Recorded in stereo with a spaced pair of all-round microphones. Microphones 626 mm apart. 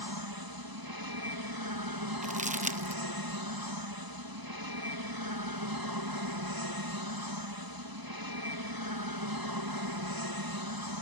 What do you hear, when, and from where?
0.0 s an aircraft: 35° right (ahead or behind)
2.2 s crumpling: 15° right (ahead or behind)